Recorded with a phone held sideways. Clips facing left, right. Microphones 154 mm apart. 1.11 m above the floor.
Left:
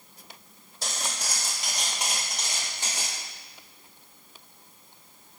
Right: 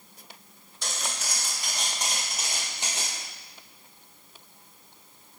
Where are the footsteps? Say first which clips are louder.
Left 1 dB; 40° left (ahead or behind), 1.7 m; by 3.2 s 25° right (ahead or behind), 1.5 m.